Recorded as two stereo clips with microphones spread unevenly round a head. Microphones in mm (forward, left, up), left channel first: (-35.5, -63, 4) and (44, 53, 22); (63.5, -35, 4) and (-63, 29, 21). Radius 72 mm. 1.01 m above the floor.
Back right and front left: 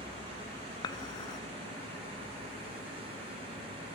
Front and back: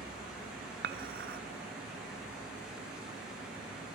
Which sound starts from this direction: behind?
Dishes clattering, at 0.8 s.